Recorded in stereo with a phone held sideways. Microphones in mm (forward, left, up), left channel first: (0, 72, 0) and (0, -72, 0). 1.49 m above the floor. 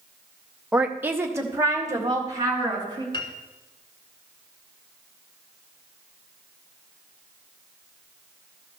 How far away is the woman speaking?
About 1.1 m.